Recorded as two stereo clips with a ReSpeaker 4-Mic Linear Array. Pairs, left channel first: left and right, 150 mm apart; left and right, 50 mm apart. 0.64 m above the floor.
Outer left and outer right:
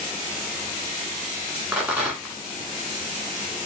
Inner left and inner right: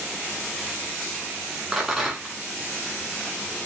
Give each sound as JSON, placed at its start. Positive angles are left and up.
{"t": 1.7, "sound": "a rattle", "side_deg": -10, "distance_m": 1.2}